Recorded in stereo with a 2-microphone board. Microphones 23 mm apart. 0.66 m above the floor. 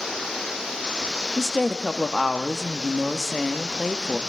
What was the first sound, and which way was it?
A woman speaking, centre (ahead or behind).